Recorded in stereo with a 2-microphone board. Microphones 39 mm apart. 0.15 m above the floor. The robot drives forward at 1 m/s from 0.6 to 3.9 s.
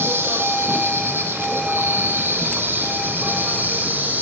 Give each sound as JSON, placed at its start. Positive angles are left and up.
{"t": 0.0, "sound": "an insect", "side_deg": -75, "distance_m": 3.5}